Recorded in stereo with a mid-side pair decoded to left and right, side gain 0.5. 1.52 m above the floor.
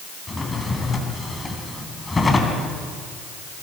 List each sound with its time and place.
0.3 s a drawer: 25° left, 4.5 m